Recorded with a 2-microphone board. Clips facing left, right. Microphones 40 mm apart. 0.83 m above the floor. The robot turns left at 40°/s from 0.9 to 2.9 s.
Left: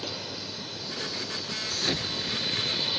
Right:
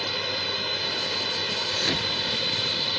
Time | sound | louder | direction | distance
0.0 | a drone | right 8 dB | 75° right | ?
1.7 | an explosion | right 1 dB | 160° right | ?